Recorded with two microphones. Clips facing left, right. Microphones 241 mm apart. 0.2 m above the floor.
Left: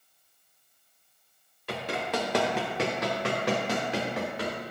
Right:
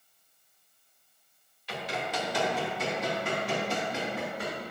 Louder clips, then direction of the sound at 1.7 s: Left 4 dB; 60° left (ahead or behind).